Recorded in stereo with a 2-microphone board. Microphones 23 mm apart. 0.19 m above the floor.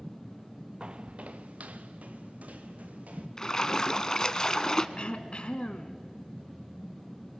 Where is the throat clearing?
45° left (ahead or behind), 1.0 m.